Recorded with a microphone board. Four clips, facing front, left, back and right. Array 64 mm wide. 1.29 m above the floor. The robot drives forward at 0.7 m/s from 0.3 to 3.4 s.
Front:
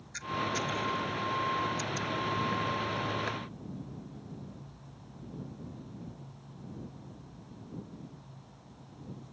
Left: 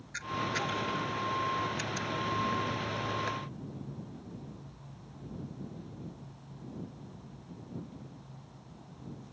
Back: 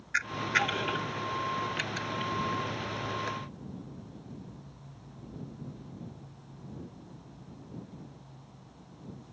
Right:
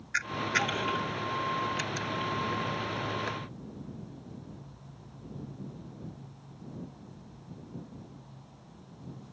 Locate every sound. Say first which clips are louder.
0.1 s a camera shutter: right 4 dB, back 4 dB; 150° right; by 2.3 s 170° right